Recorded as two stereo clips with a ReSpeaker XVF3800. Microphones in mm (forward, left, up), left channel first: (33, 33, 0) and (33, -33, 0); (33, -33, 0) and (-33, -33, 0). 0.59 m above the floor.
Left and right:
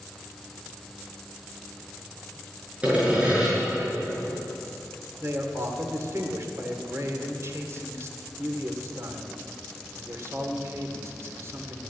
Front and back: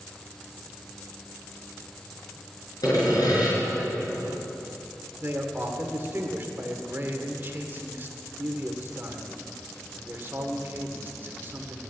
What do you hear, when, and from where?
2.8 s sawing: 20° right, 5.5 m
5.2 s a man speaking: 125° right, 1.8 m